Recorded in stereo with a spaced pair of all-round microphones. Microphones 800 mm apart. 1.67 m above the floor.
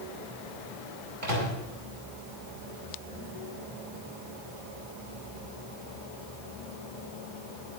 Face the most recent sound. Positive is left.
turn(degrees=-85)